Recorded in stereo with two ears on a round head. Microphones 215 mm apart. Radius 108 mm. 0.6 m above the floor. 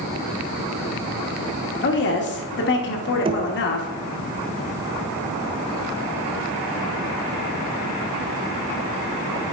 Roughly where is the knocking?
Right.